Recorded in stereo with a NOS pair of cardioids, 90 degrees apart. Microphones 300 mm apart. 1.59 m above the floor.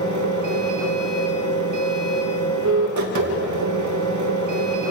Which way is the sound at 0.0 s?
65° right.